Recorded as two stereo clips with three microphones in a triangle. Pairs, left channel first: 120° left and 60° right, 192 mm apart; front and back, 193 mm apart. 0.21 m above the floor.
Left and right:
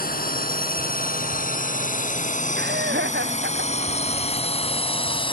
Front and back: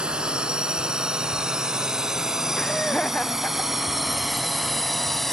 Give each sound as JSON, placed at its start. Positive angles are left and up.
{"t": 0.0, "sound": "a drone", "azimuth_deg": 95}
{"t": 2.6, "sound": "laughter", "azimuth_deg": -85}